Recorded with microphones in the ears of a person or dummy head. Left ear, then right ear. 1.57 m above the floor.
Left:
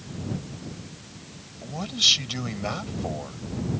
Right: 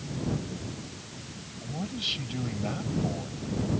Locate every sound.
1.6 s a man speaking: 50° left (ahead or behind)